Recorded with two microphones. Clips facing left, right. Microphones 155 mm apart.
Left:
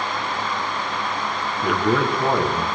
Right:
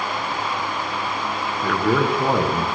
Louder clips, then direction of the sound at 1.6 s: Even; 10° left (ahead or behind).